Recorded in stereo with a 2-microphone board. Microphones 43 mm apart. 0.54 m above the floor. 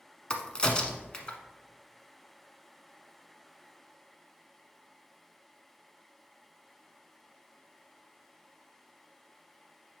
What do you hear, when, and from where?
0.3 s a crack: 20° left (ahead or behind), 0.9 m